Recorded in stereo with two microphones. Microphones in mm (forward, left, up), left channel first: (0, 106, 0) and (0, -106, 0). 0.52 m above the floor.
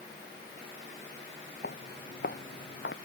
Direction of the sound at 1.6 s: 50° left (ahead or behind).